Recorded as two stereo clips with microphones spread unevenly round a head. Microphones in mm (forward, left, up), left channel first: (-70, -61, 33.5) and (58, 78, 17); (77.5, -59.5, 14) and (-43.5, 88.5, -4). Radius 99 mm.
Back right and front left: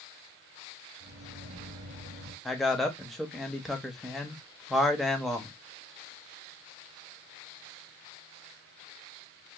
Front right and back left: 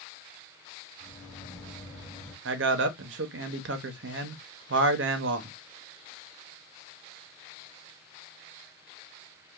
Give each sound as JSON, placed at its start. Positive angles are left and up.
{"t": 1.0, "sound": "a microwave", "azimuth_deg": 15, "distance_m": 1.2}
{"t": 2.5, "sound": "a man speaking", "azimuth_deg": 140, "distance_m": 0.5}